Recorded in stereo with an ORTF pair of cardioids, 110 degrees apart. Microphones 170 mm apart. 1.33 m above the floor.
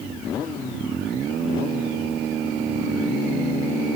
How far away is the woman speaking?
I don't hear a woman speaking.